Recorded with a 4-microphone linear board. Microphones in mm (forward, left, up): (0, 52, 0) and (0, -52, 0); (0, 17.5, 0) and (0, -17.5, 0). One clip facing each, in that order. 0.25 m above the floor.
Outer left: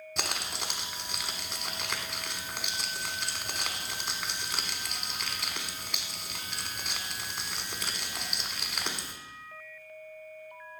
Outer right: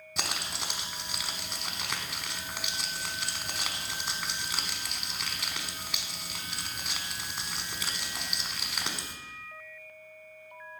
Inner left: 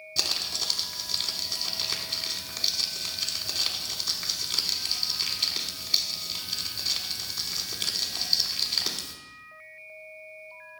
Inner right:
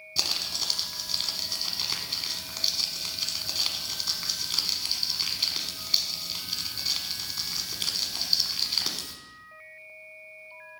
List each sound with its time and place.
0.2 s crumpling: centre (ahead or behind), 0.9 m